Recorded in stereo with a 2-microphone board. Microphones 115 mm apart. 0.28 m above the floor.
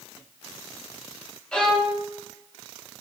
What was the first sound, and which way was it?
A violin, 5° left (ahead or behind).